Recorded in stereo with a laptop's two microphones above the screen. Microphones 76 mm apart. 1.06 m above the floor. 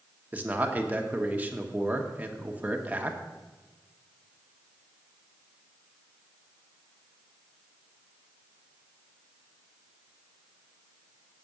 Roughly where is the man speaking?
Right.